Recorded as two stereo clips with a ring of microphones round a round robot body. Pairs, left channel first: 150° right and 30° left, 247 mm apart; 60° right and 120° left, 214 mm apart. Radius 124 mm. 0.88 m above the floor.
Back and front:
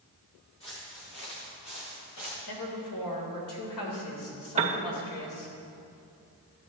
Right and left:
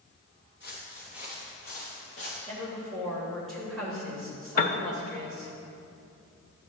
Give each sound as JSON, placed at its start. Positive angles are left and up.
{"t": 0.6, "sound": "footsteps", "azimuth_deg": -110, "distance_m": 3.5}
{"t": 2.5, "sound": "a woman speaking", "azimuth_deg": -150, "distance_m": 3.0}
{"t": 4.6, "sound": "a piano", "azimuth_deg": -25, "distance_m": 0.7}